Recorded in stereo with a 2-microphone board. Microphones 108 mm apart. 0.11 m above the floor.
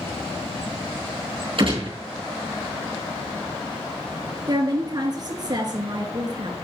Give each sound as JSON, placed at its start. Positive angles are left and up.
{"t": 1.6, "sound": "a gunshot", "side_deg": -55, "distance_m": 4.0}
{"t": 4.5, "sound": "a woman speaking", "side_deg": -40, "distance_m": 1.9}